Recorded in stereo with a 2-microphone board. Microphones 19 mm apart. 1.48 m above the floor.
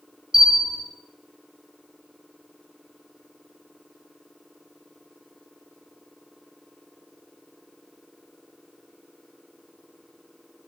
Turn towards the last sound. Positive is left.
turn(degrees=-25)  # may be behind; listen again after turning